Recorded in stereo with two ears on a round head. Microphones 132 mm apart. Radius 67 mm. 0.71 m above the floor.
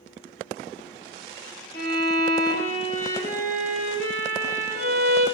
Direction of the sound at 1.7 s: 20° left (ahead or behind).